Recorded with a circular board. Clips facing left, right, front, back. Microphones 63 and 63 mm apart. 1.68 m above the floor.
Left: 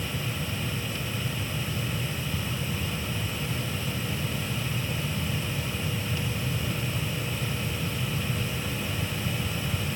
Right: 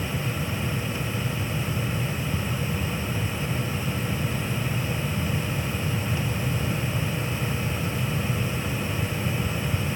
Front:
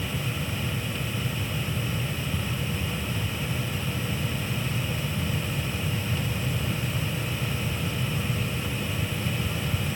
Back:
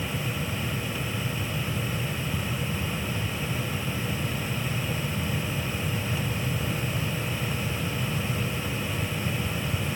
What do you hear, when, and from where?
Only background noise.